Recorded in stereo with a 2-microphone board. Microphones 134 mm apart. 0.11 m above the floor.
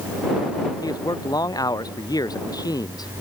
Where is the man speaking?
30° left (ahead or behind).